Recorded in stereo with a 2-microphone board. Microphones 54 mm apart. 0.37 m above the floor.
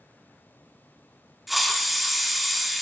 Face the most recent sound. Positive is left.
turn(degrees=0)  # may be behind; listen again after turning